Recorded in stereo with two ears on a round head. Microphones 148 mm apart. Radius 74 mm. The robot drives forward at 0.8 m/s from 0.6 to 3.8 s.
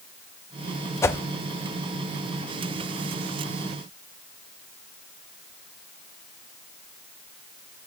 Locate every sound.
1.0 s a whoosh: 15° left (ahead or behind), 0.5 m